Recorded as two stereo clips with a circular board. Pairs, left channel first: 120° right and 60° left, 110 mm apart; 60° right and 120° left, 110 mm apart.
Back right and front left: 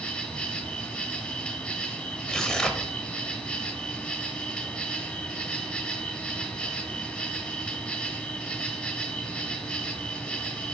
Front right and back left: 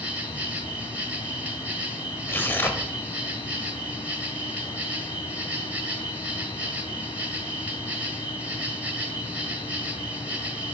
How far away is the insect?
About 1.3 m.